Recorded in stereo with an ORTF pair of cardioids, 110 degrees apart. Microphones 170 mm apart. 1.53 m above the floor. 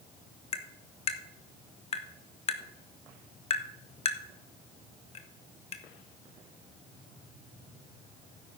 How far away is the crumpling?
I don't hear crumpling.